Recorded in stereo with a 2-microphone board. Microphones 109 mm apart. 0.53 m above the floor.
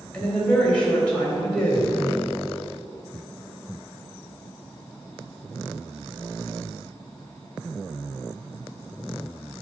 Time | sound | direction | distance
0.1 | a woman speaking | 10° left (ahead or behind) | 2.5 m